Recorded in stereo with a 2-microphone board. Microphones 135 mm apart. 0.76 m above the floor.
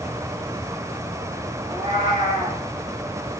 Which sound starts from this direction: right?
A cat meowing, at 1.6 s.